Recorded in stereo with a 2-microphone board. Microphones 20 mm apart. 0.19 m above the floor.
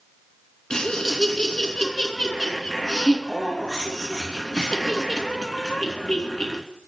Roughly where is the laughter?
Left.